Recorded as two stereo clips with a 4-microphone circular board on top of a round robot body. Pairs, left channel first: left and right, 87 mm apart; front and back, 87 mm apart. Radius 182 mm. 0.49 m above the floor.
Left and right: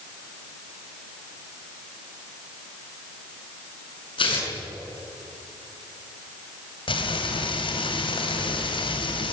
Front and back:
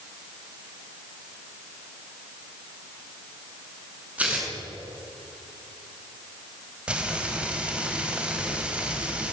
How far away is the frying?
About 4 m.